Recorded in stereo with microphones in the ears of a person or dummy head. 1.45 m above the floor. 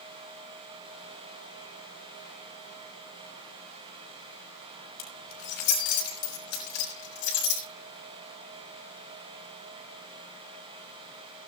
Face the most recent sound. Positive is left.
turn(degrees=65)  # may be behind; listen again after turning